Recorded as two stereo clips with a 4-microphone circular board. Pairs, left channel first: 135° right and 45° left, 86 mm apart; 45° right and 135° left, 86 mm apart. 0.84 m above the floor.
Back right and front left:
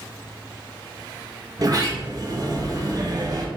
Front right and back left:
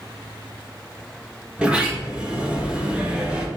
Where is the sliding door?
60° left, 1.4 m.